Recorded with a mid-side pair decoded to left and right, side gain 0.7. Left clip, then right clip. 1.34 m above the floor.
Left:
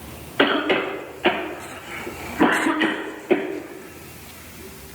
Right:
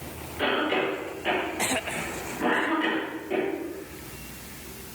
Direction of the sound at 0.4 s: 55° left.